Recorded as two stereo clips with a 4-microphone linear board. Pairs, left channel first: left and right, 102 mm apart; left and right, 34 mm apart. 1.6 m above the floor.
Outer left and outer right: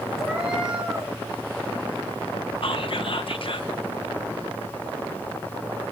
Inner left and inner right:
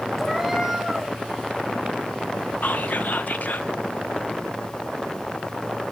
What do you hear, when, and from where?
0.2 s a cat meowing: centre (ahead or behind), 4.5 m
2.6 s whispering: 60° left (ahead or behind), 1.4 m